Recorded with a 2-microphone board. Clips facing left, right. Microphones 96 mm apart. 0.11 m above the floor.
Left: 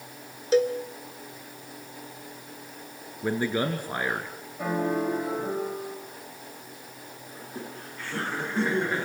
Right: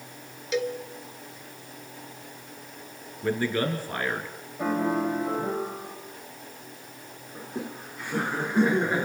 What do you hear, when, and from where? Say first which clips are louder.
0.5 s a cowbell: left 6 dB; 35° left (ahead or behind), 1.1 m
3.2 s a man speaking: even; 15° left (ahead or behind), 1.8 m
4.6 s a piano: right 1 dB; 5° right (ahead or behind), 5.5 m
7.3 s laughter: right 4 dB; 15° right (ahead or behind), 1.5 m